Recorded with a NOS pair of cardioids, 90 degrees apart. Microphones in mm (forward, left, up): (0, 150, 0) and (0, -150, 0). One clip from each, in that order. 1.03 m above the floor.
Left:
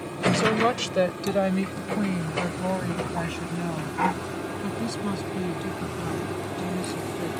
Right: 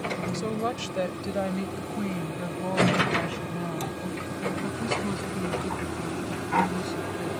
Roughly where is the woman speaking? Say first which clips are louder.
Left 7 dB; ahead left.